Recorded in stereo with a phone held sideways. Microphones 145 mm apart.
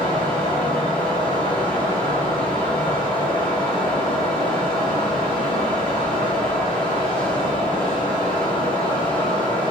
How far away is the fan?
About 1.7 m.